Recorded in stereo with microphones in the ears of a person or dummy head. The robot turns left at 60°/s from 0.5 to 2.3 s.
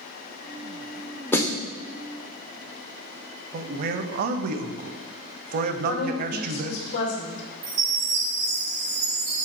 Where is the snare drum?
15° left (ahead or behind), 0.7 m; by 1.6 s 30° left (ahead or behind), 0.7 m.